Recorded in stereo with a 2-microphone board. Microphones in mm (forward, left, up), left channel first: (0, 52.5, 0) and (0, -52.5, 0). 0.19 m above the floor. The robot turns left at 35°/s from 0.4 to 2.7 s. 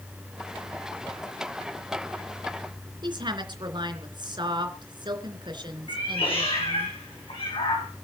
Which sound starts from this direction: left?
A cat meowing, at 5.9 s.